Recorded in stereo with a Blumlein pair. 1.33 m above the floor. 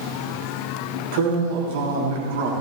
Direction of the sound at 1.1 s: 55° right.